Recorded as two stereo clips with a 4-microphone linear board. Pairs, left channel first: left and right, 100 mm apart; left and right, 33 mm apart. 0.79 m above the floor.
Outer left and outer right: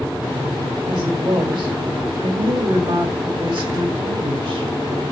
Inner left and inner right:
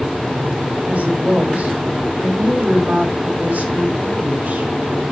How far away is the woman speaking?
About 4 m.